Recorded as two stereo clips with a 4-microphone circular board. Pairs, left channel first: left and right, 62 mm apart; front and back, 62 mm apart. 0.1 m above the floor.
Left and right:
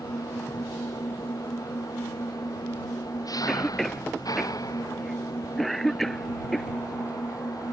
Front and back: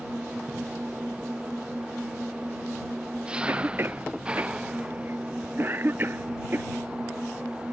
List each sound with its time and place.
0.0 s an engine running: 105° left
3.5 s a cough: 175° left